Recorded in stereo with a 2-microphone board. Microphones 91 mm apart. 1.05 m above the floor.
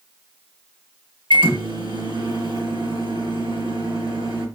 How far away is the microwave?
About 1.2 m.